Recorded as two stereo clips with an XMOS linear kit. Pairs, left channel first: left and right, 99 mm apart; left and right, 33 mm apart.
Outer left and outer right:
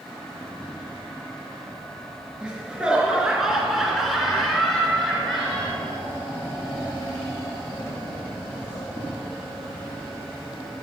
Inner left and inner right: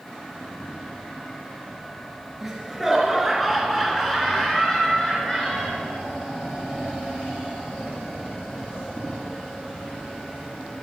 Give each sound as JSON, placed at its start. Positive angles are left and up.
{"t": 2.4, "sound": "laughter", "side_deg": -10, "distance_m": 2.0}